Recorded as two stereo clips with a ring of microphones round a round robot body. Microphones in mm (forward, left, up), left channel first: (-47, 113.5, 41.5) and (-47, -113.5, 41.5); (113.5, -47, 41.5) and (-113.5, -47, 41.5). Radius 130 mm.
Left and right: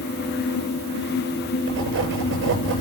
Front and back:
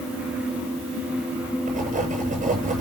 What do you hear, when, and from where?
1.7 s writing: 125° right, 9.5 m